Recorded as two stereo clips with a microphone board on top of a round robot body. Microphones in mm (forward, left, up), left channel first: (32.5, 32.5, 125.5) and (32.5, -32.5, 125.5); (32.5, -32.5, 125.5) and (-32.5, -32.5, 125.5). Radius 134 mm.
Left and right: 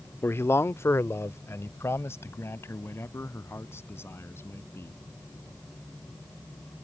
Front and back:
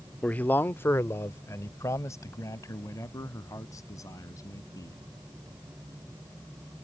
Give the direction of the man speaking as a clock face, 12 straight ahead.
10 o'clock.